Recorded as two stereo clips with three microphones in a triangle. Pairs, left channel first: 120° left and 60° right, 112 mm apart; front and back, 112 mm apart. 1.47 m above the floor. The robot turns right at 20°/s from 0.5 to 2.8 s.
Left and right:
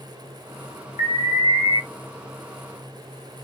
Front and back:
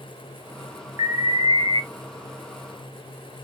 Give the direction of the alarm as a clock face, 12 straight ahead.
8 o'clock.